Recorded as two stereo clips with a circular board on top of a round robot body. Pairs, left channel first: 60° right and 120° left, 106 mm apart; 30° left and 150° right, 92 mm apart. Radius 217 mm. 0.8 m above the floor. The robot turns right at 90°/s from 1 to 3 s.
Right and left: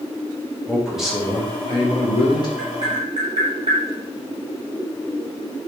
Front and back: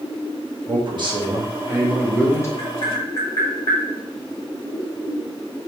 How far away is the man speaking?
About 1.2 m.